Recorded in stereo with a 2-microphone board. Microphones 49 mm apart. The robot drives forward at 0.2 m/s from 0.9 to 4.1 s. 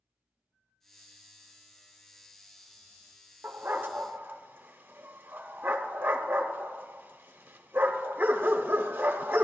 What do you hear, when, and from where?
3.4 s a dog barking: 45° right (ahead or behind), 0.8 m; by 9.4 s 40° right (ahead or behind), 0.8 m